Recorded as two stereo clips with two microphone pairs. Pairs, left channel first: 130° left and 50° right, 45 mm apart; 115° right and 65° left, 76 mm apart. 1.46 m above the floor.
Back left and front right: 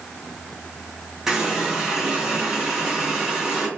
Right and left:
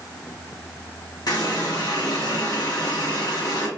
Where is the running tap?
125° right, 0.9 m.